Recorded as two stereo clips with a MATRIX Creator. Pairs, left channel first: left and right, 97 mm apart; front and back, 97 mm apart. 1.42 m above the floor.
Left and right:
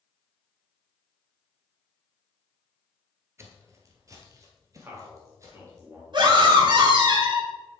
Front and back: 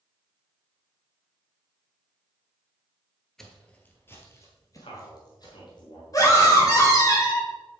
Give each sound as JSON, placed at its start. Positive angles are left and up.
{"t": 3.4, "sound": "footsteps", "azimuth_deg": -85, "distance_m": 1.5}
{"t": 4.8, "sound": "a man speaking", "azimuth_deg": -25, "distance_m": 3.0}
{"t": 6.1, "sound": "a scream", "azimuth_deg": -55, "distance_m": 3.5}